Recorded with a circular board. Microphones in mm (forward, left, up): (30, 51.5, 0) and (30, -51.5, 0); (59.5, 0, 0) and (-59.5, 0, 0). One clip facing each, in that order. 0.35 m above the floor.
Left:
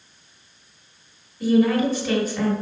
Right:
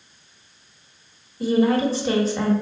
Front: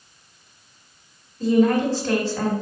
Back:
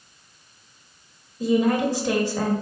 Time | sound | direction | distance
1.4 | a woman speaking | 115° right | 1.3 m